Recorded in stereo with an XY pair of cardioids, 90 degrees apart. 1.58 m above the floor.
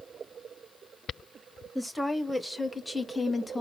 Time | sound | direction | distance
1.8 | a woman speaking | straight ahead | 2.5 m